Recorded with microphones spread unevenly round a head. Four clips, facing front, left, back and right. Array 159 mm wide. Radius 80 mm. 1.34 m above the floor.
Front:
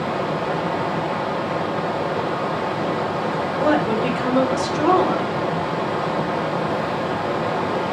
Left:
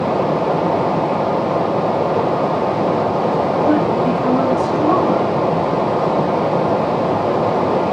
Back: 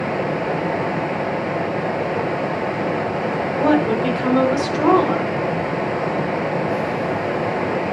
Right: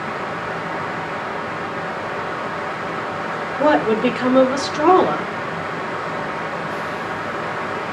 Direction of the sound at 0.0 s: 100° left.